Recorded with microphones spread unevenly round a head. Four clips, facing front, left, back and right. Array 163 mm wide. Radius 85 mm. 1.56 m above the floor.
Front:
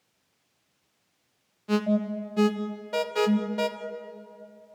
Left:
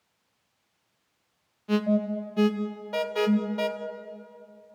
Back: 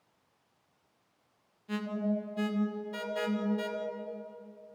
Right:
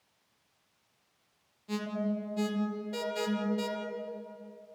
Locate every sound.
1.7 s an alarm: 30° left, 2 m